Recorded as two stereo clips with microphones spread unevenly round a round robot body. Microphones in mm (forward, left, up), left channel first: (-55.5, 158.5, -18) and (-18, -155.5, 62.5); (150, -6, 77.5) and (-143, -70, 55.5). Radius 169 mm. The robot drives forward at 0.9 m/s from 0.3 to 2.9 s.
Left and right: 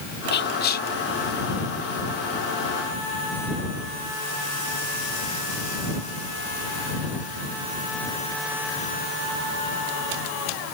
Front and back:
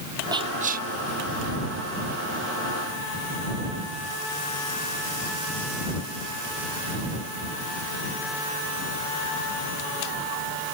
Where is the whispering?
120° left; by 0.9 s 140° left.